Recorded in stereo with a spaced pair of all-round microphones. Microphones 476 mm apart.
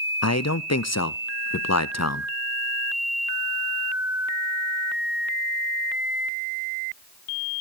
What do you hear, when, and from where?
0.2 s a man speaking: 35° left (ahead or behind), 0.5 m